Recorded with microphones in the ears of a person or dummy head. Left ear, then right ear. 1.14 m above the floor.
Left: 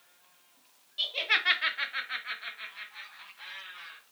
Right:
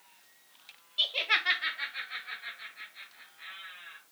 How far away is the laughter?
About 0.6 m.